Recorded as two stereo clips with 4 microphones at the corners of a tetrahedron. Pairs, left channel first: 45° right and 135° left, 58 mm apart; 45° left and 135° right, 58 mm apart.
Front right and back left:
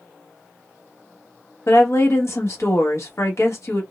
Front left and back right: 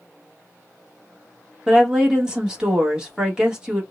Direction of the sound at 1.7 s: 60° right.